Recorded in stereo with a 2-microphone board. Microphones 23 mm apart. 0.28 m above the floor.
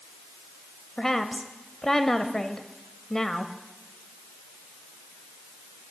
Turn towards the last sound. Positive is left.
turn(degrees=20)  # may be behind; listen again after turning